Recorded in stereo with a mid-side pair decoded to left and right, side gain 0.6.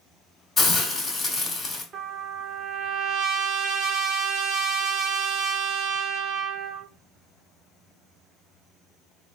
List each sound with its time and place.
0.6 s a hiss: 25° left, 2 m
1.9 s a trumpet: 50° right, 0.9 m